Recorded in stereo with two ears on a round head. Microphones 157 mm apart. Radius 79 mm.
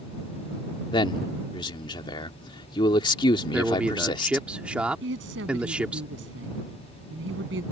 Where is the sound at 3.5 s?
5° right (ahead or behind).